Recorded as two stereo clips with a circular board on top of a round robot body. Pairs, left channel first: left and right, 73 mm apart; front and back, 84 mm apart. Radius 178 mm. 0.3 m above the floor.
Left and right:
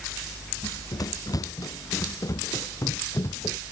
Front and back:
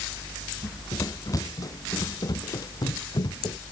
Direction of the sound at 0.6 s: 55° left.